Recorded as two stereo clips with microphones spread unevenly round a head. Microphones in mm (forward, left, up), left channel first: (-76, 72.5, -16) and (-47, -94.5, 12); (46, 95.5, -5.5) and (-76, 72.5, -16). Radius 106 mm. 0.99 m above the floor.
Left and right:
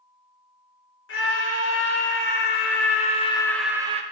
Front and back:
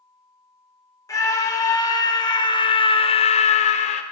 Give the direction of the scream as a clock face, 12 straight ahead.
10 o'clock.